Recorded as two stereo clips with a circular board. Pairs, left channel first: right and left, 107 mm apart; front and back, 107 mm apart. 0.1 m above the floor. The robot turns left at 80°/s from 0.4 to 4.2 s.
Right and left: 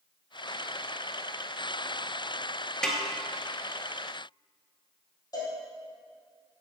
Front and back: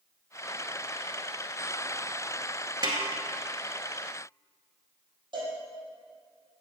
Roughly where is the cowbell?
Behind right.